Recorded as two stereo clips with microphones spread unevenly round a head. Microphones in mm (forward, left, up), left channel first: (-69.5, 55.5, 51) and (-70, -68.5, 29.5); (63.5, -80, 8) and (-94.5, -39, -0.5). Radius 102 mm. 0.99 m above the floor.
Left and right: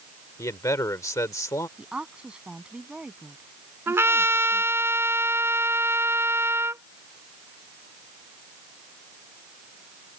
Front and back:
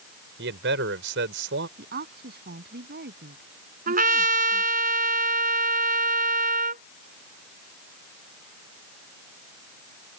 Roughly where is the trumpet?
Behind.